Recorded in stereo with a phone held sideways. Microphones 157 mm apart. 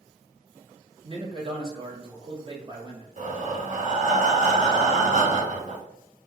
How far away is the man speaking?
About 1.1 m.